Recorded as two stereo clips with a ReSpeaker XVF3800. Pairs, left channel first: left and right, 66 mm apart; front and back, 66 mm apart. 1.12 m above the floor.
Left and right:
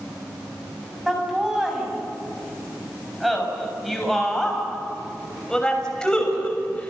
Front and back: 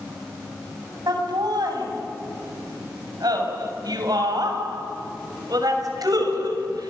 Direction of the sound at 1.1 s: 170° right.